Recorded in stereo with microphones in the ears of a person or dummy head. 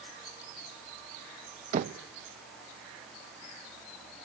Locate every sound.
1.7 s knocking: 40° right (ahead or behind), 0.6 m